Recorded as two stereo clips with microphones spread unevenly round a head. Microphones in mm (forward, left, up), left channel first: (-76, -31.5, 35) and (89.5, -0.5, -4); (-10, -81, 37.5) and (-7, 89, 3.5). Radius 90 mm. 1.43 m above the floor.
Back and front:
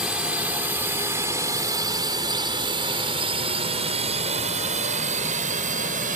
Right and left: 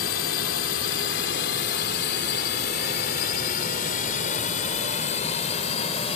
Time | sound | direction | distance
0.0 | a drone | 75° right | ?